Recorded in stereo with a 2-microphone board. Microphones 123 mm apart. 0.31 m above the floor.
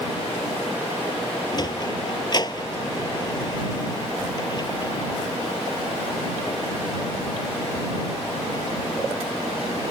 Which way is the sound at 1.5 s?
35° left (ahead or behind).